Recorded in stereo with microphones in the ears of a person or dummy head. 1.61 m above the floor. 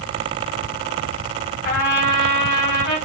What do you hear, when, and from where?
1.6 s a trumpet: 45° left (ahead or behind), 2.0 m